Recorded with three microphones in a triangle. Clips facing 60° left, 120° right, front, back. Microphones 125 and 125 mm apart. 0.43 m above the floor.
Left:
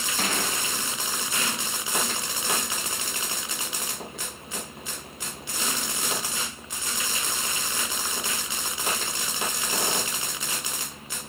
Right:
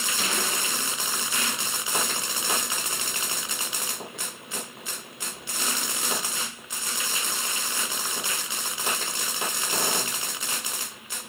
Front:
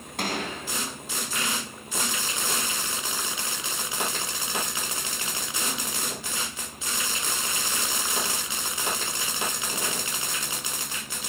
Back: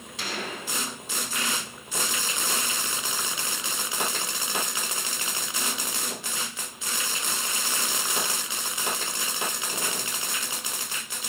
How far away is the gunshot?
About 5 m.